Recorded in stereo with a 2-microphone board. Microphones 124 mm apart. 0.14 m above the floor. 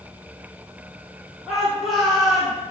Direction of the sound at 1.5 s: 5° right (ahead or behind).